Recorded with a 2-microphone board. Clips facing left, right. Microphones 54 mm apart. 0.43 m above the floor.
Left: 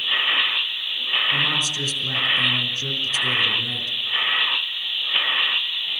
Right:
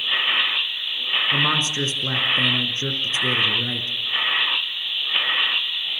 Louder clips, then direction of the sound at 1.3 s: Right 2 dB; 35° right (ahead or behind).